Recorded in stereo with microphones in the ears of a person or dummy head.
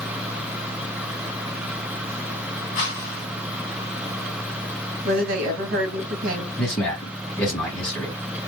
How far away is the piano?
No piano in this recording.